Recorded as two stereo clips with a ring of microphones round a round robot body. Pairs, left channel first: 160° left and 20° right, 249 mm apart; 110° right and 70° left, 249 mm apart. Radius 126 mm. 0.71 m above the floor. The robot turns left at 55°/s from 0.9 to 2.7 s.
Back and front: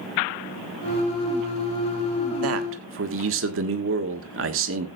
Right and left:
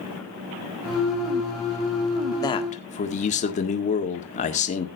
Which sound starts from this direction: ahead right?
A man speaking, at 2.4 s.